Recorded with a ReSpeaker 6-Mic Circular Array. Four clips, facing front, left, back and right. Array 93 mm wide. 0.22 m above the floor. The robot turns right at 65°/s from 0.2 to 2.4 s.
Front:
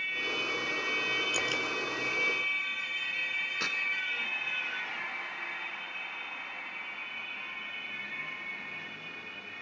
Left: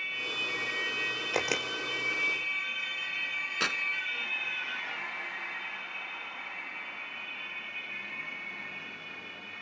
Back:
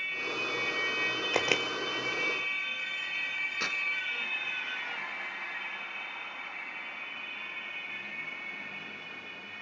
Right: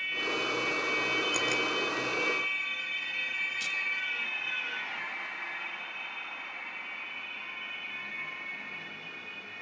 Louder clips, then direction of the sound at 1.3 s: Even, back 4 dB; 150° left.